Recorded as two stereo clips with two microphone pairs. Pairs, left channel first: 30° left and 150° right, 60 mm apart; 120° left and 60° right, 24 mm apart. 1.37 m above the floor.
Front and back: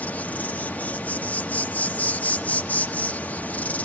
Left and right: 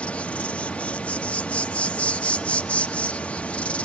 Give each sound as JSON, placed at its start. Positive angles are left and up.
{"t": 0.0, "sound": "an insect", "azimuth_deg": 95, "distance_m": 1.0}